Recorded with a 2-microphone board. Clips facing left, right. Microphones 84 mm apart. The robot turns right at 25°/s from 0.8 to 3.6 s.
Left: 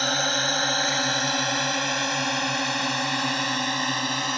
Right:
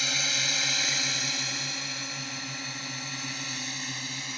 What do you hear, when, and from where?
0.0 s a drone: 50° left (ahead or behind); by 4.4 s 65° left (ahead or behind)